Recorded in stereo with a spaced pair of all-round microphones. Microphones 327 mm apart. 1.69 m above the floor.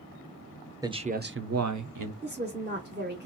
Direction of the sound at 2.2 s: 30° right (ahead or behind).